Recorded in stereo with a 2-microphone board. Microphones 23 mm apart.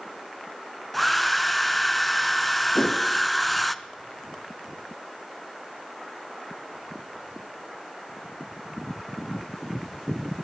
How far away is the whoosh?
About 2.5 m.